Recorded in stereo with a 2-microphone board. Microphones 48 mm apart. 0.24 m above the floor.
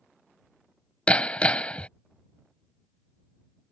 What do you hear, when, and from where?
1.1 s hammering: 25° left (ahead or behind)